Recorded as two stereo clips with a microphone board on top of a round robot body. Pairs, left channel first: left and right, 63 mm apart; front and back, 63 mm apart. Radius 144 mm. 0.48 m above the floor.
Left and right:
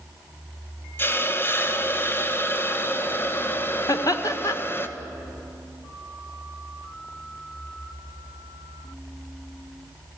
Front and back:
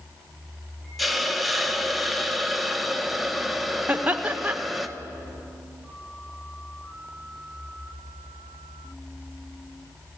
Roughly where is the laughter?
Behind left.